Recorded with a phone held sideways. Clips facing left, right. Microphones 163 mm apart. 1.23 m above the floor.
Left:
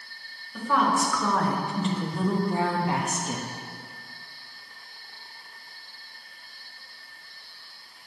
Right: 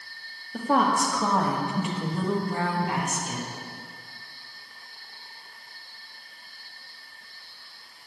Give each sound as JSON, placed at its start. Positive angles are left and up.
{"t": 0.5, "sound": "a woman speaking", "side_deg": -45, "distance_m": 2.0}